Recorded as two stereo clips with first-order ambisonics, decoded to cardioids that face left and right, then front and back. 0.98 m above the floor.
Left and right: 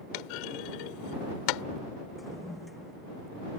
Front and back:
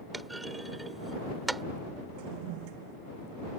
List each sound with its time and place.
0.1 s a clunk: 100° left
2.2 s a toilet flushing: 175° left